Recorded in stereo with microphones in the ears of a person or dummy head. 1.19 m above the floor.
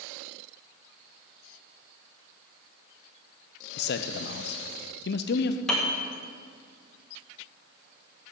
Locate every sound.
3.8 s a man speaking: 55° left (ahead or behind), 0.6 m
5.7 s a piano: 5° left (ahead or behind), 1.4 m